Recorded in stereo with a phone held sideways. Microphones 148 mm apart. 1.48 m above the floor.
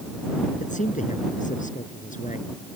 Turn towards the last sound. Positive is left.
turn(degrees=60)  # may be behind; listen again after turning